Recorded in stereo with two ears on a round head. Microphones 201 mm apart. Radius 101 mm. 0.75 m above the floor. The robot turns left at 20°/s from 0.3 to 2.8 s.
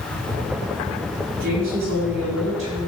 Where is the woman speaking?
55° right (ahead or behind), 7 m; by 2.9 s 80° right, 7 m.